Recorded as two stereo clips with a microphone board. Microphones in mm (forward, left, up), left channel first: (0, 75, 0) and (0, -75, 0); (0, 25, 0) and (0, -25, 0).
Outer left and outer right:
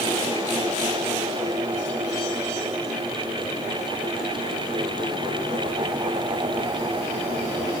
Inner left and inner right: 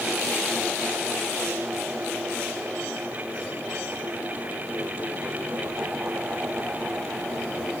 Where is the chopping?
I don't hear chopping.